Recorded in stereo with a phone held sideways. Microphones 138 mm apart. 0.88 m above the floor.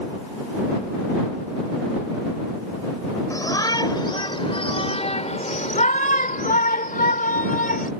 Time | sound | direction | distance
3.3 | a shout | 25° left (ahead or behind) | ?